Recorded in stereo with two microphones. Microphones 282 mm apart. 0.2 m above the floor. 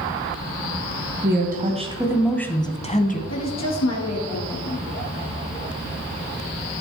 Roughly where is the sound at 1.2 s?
Right.